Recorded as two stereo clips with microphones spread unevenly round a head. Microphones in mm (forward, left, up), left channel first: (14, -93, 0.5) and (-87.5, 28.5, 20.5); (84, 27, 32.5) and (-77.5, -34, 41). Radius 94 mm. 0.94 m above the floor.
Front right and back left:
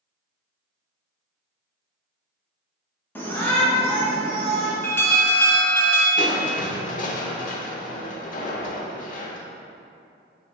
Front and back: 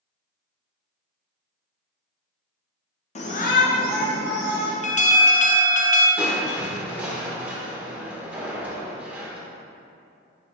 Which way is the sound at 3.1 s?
15° left.